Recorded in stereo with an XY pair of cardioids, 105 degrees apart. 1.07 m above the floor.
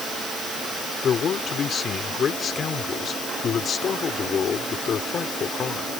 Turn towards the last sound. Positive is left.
turn(degrees=55)